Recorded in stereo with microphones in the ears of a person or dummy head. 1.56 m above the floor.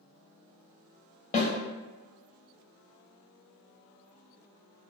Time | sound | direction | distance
1.3 | a snare drum | 35° left (ahead or behind) | 0.9 m